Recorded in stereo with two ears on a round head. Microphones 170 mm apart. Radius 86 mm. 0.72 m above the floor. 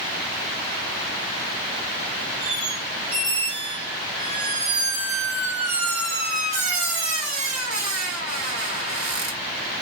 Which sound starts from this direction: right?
A squeak, at 2.4 s.